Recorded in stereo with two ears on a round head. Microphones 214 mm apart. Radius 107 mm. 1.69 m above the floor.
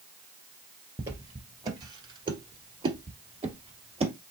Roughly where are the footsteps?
Centre.